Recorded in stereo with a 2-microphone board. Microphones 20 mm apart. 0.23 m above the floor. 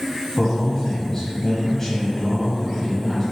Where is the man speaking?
15° left (ahead or behind), 1.0 m.